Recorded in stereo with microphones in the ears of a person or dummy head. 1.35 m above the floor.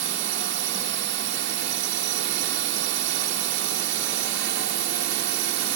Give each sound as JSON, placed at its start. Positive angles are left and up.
{"t": 0.0, "sound": "a drone", "side_deg": -55}